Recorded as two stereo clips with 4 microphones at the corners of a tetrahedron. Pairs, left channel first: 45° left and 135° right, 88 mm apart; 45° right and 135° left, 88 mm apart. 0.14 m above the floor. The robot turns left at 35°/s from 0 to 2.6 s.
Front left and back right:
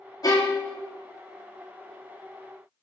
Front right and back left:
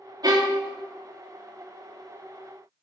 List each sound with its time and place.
0.2 s a violin: 90° left, 1.7 m; by 0.7 s 75° left, 1.7 m